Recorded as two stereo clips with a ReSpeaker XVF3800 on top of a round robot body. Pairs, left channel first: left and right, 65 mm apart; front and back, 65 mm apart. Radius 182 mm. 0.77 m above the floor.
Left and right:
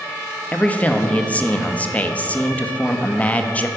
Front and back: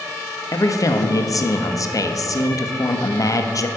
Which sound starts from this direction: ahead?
A man speaking, at 0.5 s.